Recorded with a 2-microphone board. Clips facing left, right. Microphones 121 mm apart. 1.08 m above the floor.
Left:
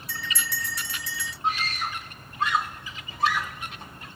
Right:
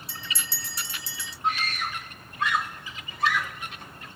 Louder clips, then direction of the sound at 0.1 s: Left 6 dB; 30° right (ahead or behind).